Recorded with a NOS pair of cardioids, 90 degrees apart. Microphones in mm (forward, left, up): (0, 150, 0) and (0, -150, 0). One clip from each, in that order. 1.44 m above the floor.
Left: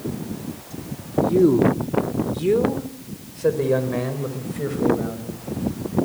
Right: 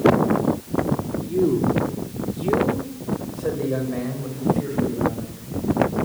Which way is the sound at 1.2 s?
40° left.